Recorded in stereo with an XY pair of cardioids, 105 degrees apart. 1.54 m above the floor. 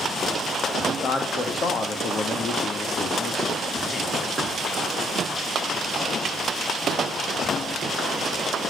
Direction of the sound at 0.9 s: 45° left.